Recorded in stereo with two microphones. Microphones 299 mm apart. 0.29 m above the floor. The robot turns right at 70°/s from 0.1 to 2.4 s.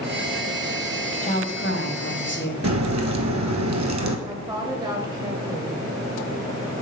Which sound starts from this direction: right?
A crack, at 2.6 s.